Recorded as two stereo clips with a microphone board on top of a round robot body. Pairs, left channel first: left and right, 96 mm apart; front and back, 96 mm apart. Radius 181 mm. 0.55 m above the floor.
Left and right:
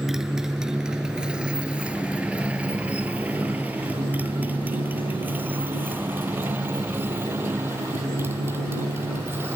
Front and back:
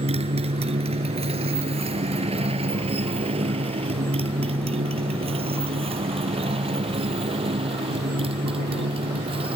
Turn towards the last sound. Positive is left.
turn(degrees=-155)